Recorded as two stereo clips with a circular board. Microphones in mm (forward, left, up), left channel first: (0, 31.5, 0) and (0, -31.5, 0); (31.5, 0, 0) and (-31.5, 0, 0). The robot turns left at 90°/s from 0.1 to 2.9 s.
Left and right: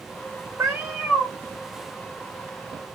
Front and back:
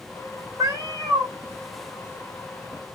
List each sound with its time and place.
0.6 s a cat meowing: 140° right, 3.5 m; by 1.3 s 155° left, 3.5 m